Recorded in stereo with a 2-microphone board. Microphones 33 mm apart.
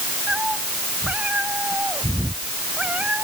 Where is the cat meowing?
40° right (ahead or behind); by 3.2 s 45° right (ahead or behind).